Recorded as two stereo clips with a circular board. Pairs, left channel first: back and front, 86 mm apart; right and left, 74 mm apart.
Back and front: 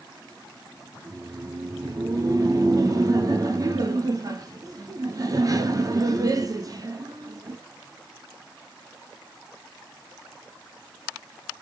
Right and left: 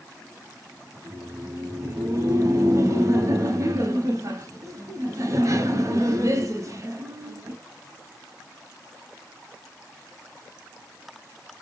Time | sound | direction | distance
0.9 | laughter | 45° left | 1.0 m